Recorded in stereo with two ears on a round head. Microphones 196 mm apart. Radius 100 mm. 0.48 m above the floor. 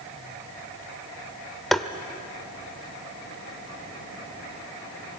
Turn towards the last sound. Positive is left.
turn(degrees=0)  # may be behind; listen again after turning